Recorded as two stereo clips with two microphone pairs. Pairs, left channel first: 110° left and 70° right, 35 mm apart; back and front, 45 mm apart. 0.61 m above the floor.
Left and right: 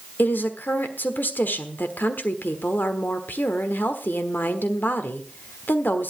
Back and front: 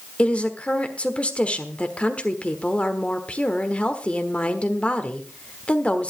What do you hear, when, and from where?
0.2 s a woman speaking: 115° left, 1.3 m